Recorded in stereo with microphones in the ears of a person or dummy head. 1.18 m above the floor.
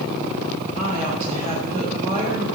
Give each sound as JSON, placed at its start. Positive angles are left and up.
{"t": 0.7, "sound": "a woman speaking", "side_deg": -35, "distance_m": 4.5}